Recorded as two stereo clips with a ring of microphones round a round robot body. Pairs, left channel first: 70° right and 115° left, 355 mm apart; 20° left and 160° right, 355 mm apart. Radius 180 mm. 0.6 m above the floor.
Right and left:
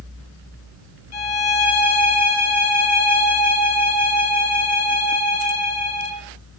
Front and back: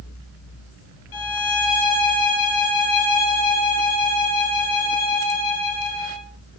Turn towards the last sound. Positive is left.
turn(degrees=-15)